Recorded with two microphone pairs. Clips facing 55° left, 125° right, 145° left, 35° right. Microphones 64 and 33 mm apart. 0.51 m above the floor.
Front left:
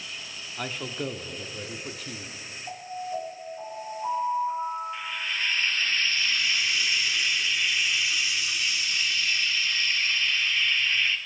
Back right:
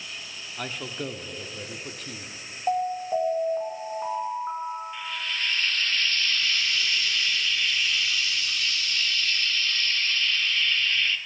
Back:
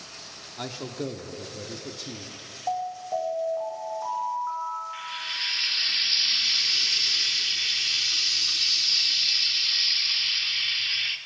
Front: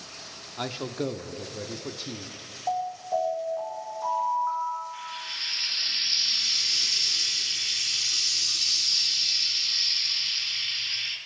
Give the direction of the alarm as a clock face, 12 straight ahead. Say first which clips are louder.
Back right 9 dB, front 1 dB; 4 o'clock.